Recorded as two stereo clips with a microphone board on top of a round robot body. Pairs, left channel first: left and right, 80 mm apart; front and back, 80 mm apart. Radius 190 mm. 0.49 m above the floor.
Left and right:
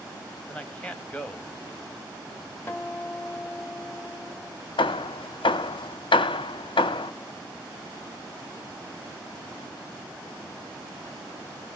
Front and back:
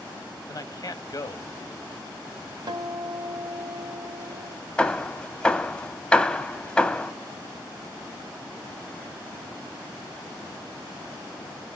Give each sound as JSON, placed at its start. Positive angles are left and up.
{"t": 0.5, "sound": "a man speaking", "azimuth_deg": 15, "distance_m": 1.3}
{"t": 2.7, "sound": "a guitar", "azimuth_deg": 155, "distance_m": 0.9}
{"t": 4.8, "sound": "hammering", "azimuth_deg": 75, "distance_m": 0.6}